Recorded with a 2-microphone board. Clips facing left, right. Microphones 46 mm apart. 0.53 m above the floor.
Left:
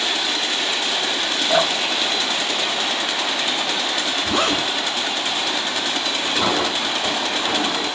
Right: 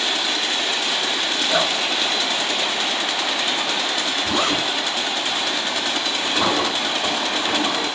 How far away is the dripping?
About 1.7 m.